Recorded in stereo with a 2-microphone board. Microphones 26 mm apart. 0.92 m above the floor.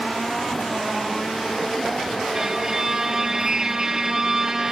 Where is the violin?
20° right (ahead or behind), 1.7 m.